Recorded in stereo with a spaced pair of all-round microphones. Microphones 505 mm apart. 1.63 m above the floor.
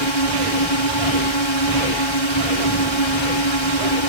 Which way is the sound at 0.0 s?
60° left (ahead or behind).